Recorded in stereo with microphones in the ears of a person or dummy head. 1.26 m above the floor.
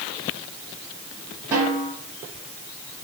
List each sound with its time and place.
1.5 s a snare drum: 10° right (ahead or behind), 1.5 m